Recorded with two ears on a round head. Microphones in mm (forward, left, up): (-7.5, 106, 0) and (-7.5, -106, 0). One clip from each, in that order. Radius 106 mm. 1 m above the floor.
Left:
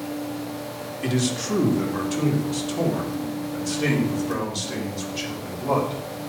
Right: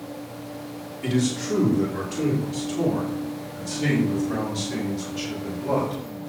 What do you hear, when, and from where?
1.0 s a man speaking: 35° left (ahead or behind), 2.5 m; by 6.0 s 60° left (ahead or behind), 5.5 m